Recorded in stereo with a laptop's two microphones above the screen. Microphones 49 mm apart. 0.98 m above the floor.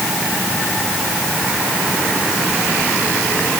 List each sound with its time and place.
Only background noise.